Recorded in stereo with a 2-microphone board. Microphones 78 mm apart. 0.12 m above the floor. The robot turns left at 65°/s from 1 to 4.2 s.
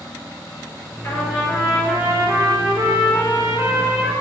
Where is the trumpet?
40° left, 2.5 m; by 4.1 s 160° right, 2.5 m.